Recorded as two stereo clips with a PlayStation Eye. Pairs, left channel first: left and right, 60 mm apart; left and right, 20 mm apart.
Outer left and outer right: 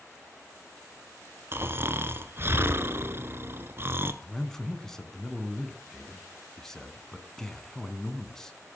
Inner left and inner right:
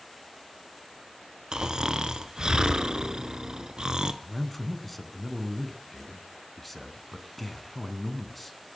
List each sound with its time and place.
1.5 s snoring: 40° right (ahead or behind), 0.9 m
4.2 s a man speaking: 10° left (ahead or behind), 1.5 m